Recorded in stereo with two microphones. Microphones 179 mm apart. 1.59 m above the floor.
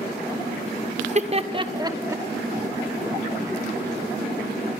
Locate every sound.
1.0 s laughter: 45° right (ahead or behind), 1.1 m; by 2.2 s 15° right (ahead or behind), 1.5 m